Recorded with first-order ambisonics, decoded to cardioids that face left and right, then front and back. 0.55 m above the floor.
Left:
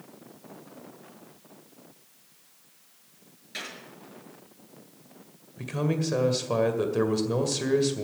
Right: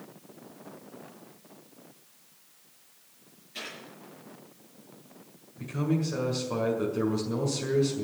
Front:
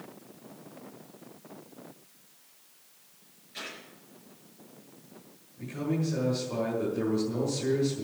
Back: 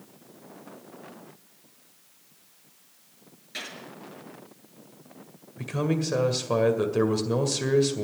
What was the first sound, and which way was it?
A gunshot, 130° left.